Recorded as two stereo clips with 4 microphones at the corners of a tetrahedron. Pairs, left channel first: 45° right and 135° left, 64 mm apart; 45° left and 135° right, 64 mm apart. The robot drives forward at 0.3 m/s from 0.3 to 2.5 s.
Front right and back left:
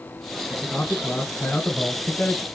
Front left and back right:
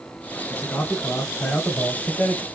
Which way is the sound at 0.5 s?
20° left.